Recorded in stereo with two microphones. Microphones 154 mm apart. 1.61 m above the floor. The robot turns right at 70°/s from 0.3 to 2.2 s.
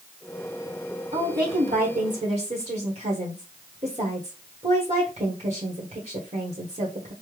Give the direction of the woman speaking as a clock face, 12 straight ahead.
4 o'clock.